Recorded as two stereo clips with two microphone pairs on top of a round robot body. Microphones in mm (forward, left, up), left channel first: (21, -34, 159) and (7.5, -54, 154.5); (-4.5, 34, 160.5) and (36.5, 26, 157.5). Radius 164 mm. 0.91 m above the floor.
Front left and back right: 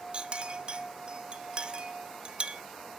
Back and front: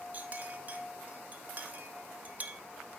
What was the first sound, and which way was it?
A clink, 70° right.